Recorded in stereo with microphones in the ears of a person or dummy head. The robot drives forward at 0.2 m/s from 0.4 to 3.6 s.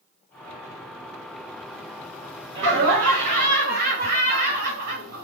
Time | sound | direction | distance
2.5 | laughter | 70° right (ahead or behind) | 1.1 m